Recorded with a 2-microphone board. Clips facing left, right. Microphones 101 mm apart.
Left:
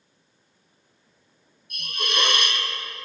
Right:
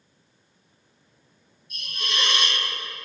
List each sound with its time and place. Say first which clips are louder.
1.7 s a hiss: left 3 dB; 55° left (ahead or behind), 1.1 m